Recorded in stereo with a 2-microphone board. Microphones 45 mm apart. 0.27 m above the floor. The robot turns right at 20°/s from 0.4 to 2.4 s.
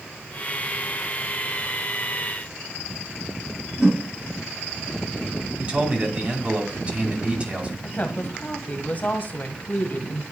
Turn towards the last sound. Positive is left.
turn(degrees=40)  # may be behind; listen again after turning